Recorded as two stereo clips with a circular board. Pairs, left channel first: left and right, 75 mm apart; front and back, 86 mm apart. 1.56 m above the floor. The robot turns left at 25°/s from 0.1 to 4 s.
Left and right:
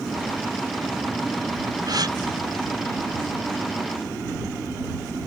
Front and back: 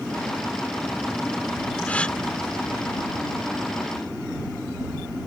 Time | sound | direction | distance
1.9 | a gasp | 70° right | ?